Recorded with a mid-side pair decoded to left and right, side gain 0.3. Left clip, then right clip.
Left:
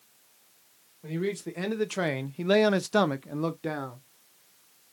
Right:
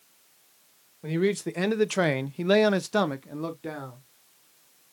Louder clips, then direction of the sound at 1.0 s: Right 6 dB; 70° right.